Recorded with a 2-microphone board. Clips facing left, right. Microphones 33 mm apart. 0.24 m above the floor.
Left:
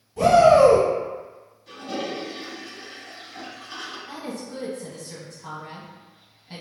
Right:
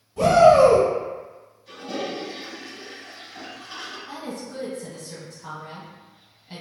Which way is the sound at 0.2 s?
5° right (ahead or behind).